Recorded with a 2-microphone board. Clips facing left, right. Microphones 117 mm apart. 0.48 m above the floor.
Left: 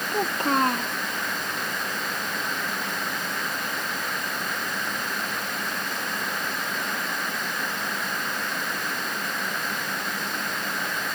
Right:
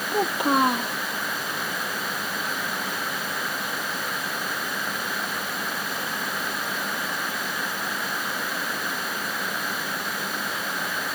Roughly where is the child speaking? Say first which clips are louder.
Right 2 dB; centre.